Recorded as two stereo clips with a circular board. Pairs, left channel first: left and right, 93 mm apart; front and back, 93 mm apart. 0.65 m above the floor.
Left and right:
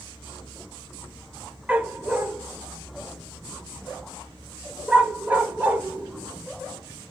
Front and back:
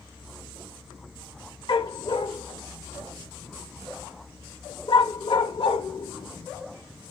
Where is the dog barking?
15° right, 0.5 m.